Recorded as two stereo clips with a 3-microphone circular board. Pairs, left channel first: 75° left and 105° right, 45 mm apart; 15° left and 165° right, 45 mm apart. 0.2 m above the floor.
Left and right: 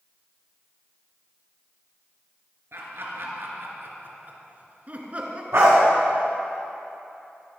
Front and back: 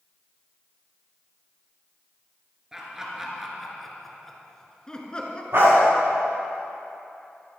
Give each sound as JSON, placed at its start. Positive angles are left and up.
{"t": 2.7, "sound": "laughter", "azimuth_deg": -90, "distance_m": 3.0}
{"t": 5.5, "sound": "a dog barking", "azimuth_deg": -135, "distance_m": 6.0}